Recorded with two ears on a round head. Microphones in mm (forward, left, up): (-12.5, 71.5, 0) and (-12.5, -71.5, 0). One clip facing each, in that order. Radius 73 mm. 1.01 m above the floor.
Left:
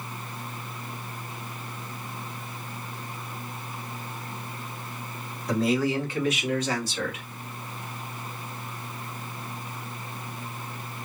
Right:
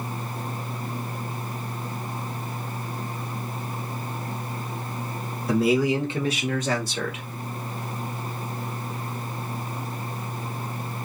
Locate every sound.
5.5 s a man speaking: 5° right (ahead or behind), 1.3 m; by 7.2 s 60° right (ahead or behind), 1.3 m